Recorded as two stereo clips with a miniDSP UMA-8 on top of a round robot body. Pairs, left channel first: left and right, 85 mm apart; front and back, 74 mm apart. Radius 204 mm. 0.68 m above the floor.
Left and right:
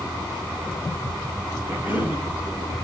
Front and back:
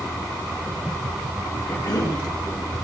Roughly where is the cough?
Ahead.